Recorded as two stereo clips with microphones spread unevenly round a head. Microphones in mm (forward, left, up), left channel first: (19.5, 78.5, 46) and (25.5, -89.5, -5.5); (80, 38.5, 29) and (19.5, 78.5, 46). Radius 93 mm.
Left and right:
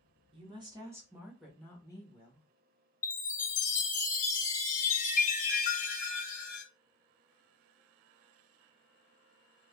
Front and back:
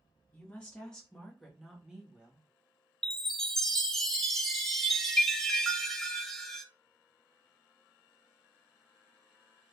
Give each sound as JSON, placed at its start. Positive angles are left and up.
{"t": 0.3, "sound": "a woman speaking", "azimuth_deg": -80, "distance_m": 1.1}
{"t": 3.0, "sound": "a chime", "azimuth_deg": 50, "distance_m": 0.7}